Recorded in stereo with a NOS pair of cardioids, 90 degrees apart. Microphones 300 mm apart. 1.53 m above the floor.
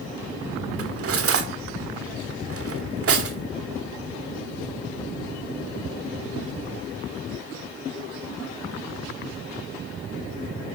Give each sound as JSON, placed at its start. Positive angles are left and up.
{"t": 0.8, "sound": "cutlery clinking", "azimuth_deg": -50, "distance_m": 2.5}